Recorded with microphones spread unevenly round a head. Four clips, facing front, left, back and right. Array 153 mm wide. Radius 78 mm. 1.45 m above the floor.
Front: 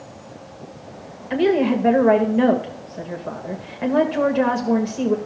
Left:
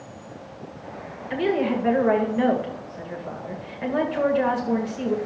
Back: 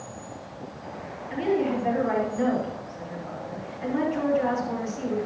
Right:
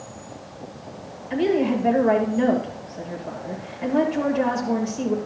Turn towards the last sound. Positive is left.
turn(degrees=5)